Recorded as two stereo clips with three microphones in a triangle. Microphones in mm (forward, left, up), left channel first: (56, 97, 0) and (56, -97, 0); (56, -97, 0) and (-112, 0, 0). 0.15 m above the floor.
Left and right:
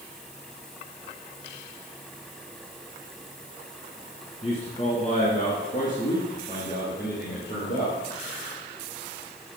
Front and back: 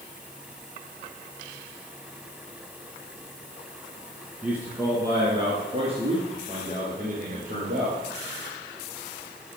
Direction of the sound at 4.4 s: 70° left.